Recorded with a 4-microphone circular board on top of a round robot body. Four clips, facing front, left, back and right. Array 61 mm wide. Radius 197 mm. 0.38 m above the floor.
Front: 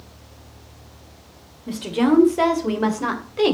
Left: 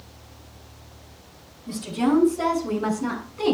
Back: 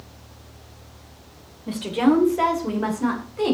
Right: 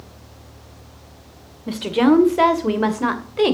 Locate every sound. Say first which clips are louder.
1.7 s a woman speaking: right 7 dB, even; 95° right, 2 m; by 3.5 s 65° right, 2.5 m